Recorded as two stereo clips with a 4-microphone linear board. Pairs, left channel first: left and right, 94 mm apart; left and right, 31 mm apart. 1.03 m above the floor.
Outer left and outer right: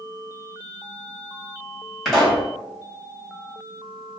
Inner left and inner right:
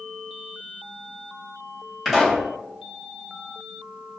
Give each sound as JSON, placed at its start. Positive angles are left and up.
{"t": 2.0, "sound": "a pop", "side_deg": 0, "distance_m": 1.3}